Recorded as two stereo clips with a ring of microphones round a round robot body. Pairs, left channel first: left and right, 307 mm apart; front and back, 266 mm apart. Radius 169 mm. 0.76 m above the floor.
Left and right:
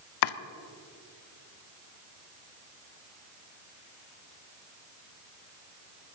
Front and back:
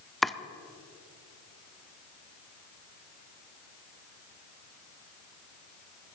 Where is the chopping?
90° left, 0.6 m.